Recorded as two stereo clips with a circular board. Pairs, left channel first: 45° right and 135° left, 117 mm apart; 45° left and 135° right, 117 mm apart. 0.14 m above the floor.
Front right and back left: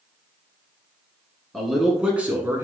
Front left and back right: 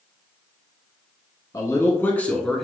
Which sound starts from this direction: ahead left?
A man speaking, at 1.5 s.